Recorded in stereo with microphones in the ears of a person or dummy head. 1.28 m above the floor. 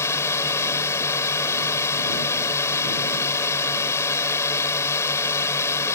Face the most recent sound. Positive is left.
turn(degrees=15)  # may be behind; listen again after turning